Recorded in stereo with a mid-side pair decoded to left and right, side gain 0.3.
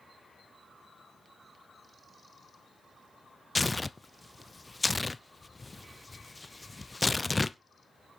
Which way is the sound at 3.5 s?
25° left.